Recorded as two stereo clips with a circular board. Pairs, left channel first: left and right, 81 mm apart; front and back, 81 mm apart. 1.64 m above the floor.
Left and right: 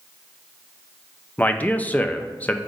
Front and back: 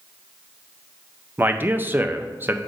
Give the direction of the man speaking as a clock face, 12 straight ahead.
7 o'clock.